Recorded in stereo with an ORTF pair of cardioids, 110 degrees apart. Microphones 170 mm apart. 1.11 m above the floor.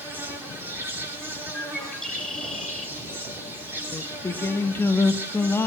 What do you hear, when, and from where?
0.0 s an insect: 15° right, 3 m
1.5 s a bird: 5° left, 2 m
3.9 s singing: 15° left, 0.9 m